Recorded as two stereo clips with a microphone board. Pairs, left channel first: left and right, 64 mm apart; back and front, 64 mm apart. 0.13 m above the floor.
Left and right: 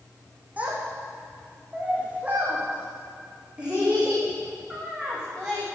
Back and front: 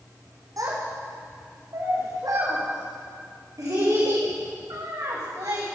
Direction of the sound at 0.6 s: 25° right.